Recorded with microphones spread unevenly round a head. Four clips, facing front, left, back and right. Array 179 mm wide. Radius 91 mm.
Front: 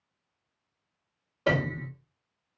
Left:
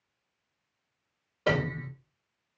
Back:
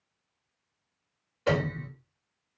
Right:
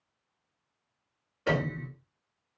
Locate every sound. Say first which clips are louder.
1.5 s a piano: left 1 dB, even; 35° left, 3 m